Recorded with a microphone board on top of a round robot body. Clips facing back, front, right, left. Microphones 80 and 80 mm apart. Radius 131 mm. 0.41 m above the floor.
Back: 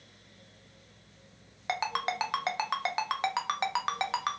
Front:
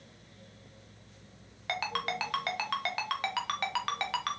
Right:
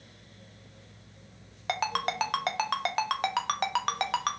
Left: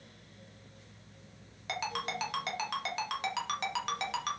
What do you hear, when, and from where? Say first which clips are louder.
1.7 s a ringtone: back 3 dB, right 6 dB; 115° right, 0.6 m